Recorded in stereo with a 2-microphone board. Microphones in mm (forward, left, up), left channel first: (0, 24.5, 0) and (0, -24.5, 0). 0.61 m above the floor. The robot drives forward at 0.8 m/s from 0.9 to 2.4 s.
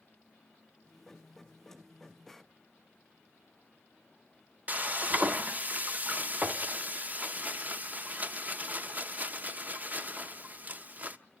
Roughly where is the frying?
Right.